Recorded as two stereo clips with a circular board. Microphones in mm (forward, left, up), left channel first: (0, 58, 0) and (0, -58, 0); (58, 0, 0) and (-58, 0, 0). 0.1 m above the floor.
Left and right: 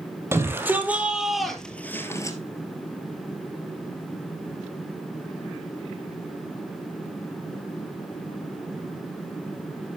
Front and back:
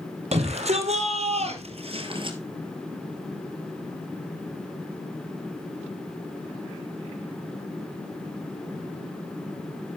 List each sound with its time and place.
0.3 s a shout: 155° right, 3 m; by 2.4 s 145° left, 2 m